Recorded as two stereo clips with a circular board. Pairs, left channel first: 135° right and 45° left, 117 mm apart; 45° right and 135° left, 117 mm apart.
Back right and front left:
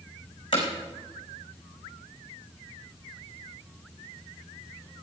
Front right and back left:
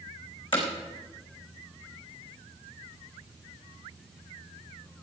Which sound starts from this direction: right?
Hammering, at 0.5 s.